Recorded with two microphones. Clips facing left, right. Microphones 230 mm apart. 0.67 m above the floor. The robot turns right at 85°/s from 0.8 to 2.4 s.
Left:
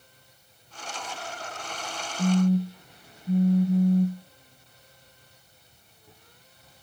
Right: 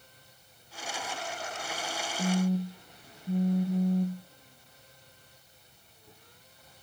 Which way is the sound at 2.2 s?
5° left (ahead or behind).